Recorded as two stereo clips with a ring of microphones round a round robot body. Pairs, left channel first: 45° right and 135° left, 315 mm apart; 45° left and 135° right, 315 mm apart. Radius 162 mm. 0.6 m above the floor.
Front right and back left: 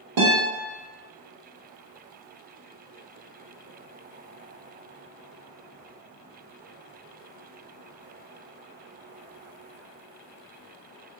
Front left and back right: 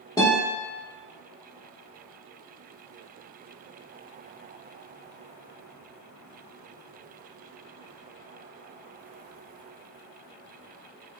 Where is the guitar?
125° left, 1.0 m.